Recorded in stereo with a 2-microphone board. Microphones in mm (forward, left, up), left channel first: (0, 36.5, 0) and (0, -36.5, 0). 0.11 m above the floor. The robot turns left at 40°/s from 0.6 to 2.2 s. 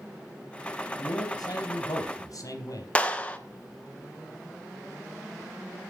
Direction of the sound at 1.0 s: 110° left.